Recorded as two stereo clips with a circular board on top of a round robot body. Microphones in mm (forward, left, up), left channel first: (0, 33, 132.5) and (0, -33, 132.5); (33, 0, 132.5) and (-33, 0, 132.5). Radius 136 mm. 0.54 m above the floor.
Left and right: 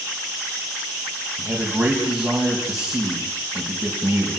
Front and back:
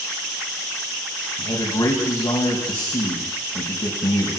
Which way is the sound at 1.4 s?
5° right.